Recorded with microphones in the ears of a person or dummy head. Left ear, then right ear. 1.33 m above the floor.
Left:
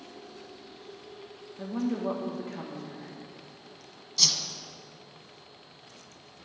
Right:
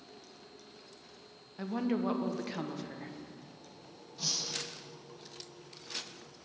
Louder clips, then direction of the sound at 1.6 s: Left 2 dB; 70° right (ahead or behind).